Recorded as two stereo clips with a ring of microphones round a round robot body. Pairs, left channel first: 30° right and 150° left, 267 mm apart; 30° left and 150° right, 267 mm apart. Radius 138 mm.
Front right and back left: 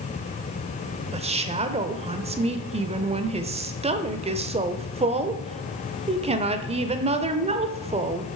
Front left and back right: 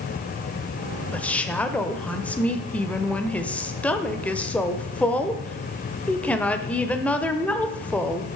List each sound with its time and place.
1.1 s a woman speaking: 110° left, 0.9 m